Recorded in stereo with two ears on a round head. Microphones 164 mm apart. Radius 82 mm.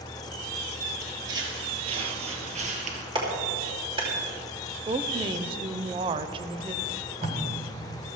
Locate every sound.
1.0 s footsteps: 20° right (ahead or behind), 2 m; by 3.0 s 45° right (ahead or behind), 2.5 m
3.1 s a clap: 25° right (ahead or behind), 3 m
4.9 s a woman speaking: 25° right (ahead or behind), 0.6 m
6.8 s tape being pulled: 40° right (ahead or behind), 1.7 m